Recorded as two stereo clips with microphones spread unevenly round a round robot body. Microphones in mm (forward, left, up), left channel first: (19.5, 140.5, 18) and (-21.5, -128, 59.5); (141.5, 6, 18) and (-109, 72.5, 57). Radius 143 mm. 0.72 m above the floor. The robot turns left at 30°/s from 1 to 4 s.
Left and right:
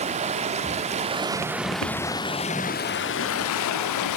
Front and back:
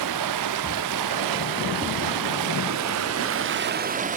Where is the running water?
165° right, 0.7 m; by 4.2 s 105° left, 0.7 m.